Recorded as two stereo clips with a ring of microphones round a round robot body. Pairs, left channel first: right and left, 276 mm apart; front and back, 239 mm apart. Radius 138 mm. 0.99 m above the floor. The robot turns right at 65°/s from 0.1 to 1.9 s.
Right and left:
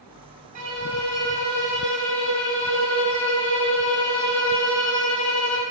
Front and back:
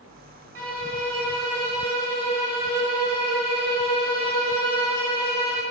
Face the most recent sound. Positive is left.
turn(degrees=-120)